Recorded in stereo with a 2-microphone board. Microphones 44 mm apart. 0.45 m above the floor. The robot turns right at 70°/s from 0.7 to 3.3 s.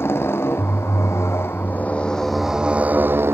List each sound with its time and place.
0.0 s a motorcycle: 65° left; by 3.4 s 115° right